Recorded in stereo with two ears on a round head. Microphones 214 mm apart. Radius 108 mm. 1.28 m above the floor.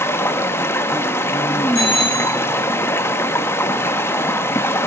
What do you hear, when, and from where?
0.0 s running water: 10° left (ahead or behind), 0.7 m
1.8 s a bicycle bell: 30° left (ahead or behind), 6.5 m